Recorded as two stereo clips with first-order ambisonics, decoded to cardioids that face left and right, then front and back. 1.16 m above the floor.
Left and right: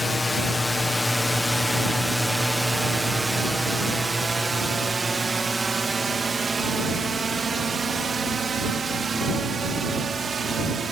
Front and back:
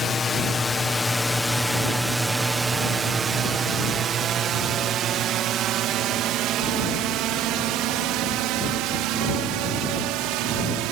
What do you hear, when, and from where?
0.0 s a drone: 30° left; by 10.9 s 160° right